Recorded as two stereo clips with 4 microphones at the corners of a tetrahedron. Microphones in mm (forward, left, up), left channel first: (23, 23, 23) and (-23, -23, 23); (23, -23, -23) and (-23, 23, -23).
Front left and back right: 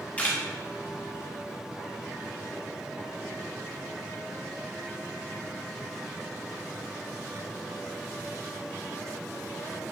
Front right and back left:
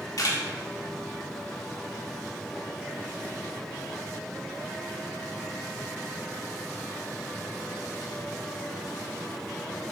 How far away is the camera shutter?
About 2 m.